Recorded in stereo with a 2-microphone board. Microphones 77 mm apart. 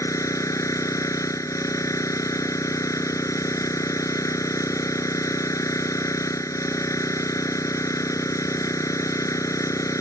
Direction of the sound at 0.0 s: 45° left (ahead or behind).